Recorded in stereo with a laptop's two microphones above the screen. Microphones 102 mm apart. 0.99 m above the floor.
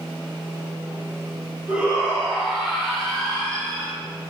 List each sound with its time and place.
1.7 s a shout: 10° right (ahead or behind), 3 m; by 4.0 s 10° left (ahead or behind), 2.5 m